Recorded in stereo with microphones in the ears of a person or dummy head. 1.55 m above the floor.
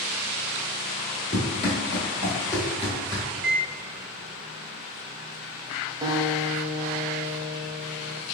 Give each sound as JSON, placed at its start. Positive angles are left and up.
{"t": 1.3, "sound": "running footsteps", "side_deg": 20, "distance_m": 1.6}
{"t": 3.3, "sound": "a microwave", "side_deg": -10, "distance_m": 1.5}
{"t": 6.0, "sound": "a guitar", "side_deg": -25, "distance_m": 0.6}